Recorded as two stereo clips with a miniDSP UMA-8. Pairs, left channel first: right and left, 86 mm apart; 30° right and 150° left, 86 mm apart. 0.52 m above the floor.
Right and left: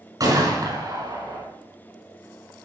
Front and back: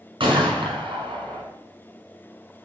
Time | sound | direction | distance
0.2 | a gunshot | 135° left | 4 m